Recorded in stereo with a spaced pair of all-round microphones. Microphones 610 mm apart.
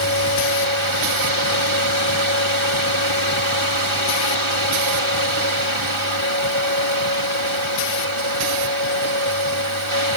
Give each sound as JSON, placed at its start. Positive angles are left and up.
{"t": 0.0, "sound": "a fan", "side_deg": -50}